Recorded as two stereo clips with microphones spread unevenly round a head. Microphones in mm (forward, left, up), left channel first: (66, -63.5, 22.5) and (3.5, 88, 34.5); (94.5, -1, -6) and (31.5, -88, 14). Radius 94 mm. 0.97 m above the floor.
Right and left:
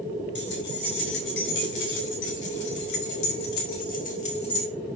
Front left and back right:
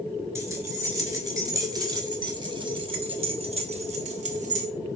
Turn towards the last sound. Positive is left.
turn(degrees=-135)